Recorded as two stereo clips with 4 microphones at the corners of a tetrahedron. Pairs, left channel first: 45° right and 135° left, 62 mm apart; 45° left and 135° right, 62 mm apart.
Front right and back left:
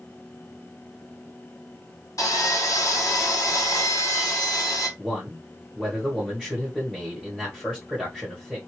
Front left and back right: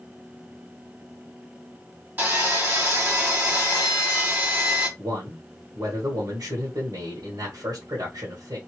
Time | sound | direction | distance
2.2 | sawing | 75° right | 1.5 m
5.0 | a man speaking | 145° right | 1.1 m